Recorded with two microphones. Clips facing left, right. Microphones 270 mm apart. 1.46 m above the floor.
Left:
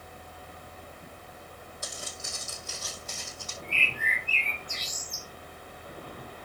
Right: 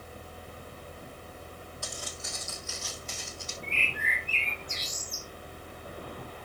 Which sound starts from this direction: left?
Footsteps, at 1.8 s.